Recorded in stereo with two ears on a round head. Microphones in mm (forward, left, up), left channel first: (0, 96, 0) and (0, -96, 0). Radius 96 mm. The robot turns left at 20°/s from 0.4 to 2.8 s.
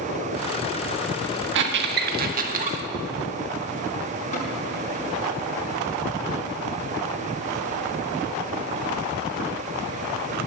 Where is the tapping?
35° left (ahead or behind), 6 m.